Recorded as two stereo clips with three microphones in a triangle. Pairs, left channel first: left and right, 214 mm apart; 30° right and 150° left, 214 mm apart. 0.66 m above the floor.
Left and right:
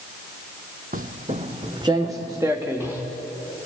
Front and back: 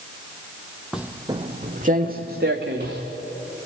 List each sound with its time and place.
0.9 s footsteps: 120° right, 1.0 m; by 3.0 s 170° right, 3 m